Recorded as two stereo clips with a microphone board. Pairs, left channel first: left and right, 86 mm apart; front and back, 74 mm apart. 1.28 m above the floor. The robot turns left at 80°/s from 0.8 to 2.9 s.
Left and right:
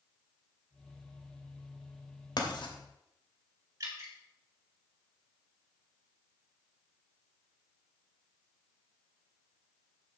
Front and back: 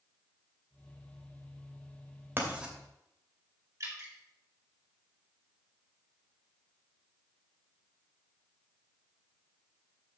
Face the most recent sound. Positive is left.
turn(degrees=-135)